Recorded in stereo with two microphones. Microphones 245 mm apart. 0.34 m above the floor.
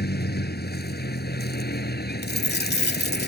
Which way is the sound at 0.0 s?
40° left (ahead or behind).